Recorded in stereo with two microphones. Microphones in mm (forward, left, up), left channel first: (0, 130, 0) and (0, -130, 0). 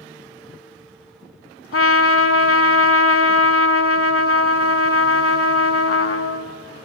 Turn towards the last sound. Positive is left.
turn(degrees=60)  # may be behind; listen again after turning